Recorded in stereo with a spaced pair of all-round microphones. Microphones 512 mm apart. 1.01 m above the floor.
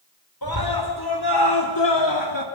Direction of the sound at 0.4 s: 45° left (ahead or behind).